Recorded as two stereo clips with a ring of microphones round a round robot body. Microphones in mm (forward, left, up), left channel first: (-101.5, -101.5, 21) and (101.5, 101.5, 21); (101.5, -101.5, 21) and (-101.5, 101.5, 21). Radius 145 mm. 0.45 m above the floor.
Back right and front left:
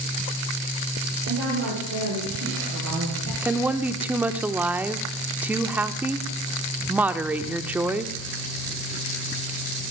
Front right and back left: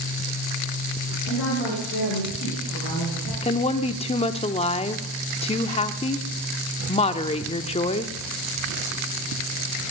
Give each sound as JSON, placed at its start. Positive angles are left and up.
{"t": 1.2, "sound": "a woman speaking", "azimuth_deg": 5, "distance_m": 9.0}
{"t": 3.4, "sound": "a woman speaking", "azimuth_deg": -30, "distance_m": 0.7}